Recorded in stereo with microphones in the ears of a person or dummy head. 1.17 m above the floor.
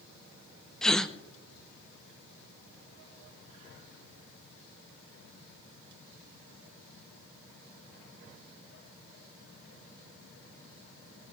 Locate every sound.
0.8 s a gasp: 5° left (ahead or behind), 0.5 m